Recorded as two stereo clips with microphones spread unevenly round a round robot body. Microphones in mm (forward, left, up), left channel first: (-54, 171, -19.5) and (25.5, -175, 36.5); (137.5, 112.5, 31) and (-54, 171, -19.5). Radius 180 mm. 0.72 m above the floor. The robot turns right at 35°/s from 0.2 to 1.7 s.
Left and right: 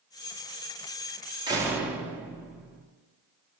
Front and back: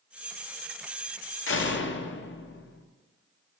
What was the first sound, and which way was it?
A door slam, 5° left.